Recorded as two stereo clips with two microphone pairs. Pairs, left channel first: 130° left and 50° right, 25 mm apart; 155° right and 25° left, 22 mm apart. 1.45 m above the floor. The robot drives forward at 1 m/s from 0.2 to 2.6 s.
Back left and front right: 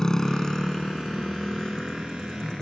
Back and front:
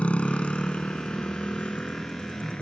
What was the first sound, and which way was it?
A motorcycle, 170° right.